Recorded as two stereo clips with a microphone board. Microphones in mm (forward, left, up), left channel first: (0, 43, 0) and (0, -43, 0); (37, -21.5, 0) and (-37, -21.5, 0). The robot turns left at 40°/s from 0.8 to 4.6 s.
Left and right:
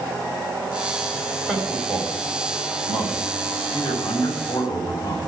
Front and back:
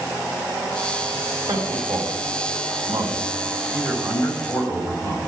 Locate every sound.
1.5 s a man speaking: 175° right, 4.5 m; by 5.2 s 60° left, 4.5 m